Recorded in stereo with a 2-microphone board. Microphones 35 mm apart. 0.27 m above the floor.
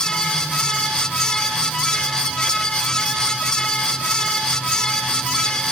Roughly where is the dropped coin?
I don't hear a dropped coin.